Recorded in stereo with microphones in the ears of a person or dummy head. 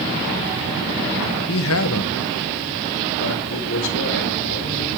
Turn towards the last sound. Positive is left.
turn(degrees=60)  # may be behind; listen again after turning